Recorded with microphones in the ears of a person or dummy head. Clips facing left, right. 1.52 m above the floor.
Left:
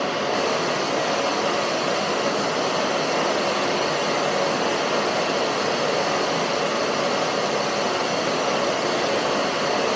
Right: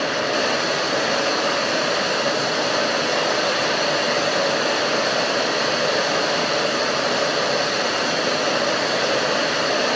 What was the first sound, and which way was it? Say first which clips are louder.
Running water: right 1 dB; 20° right (ahead or behind).